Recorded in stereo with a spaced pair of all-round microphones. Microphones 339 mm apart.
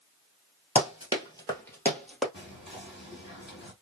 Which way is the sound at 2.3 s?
35° left (ahead or behind).